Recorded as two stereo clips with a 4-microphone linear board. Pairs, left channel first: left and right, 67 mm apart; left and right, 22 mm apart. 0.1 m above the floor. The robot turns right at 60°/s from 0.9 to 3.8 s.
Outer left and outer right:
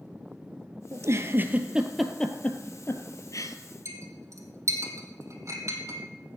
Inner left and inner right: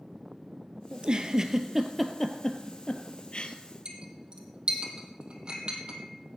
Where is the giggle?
50° right (ahead or behind), 1.1 m; by 3.5 s 60° left (ahead or behind), 1.1 m.